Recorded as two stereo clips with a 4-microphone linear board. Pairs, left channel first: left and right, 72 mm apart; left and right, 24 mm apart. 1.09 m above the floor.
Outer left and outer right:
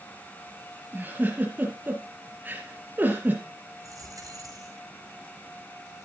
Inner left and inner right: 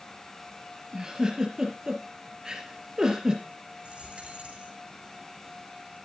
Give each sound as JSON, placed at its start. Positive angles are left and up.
{"t": 0.9, "sound": "a giggle", "side_deg": -25, "distance_m": 3.5}
{"t": 3.8, "sound": "a dropped coin", "side_deg": -50, "distance_m": 5.5}